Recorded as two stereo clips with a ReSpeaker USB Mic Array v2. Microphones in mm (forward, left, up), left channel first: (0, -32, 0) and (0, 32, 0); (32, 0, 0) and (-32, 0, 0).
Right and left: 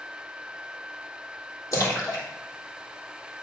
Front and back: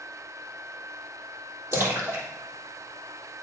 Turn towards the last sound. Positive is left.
turn(degrees=-125)